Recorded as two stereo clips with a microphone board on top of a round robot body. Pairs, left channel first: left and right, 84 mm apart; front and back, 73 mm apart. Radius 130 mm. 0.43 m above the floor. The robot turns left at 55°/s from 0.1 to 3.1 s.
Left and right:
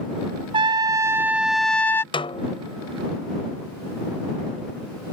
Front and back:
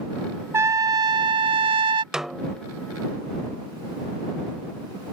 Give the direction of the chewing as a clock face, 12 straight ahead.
No chewing in this recording.